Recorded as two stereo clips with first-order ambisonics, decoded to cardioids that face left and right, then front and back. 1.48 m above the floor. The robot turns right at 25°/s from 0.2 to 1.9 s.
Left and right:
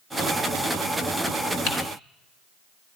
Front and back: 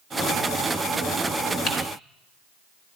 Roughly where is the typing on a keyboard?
Ahead left.